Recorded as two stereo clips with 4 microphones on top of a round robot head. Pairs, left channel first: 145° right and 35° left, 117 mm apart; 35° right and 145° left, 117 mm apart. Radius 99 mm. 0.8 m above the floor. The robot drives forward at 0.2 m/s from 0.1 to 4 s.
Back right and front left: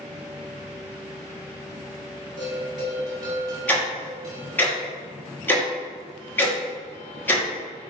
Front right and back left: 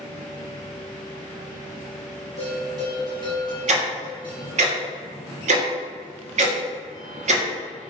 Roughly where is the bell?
Left.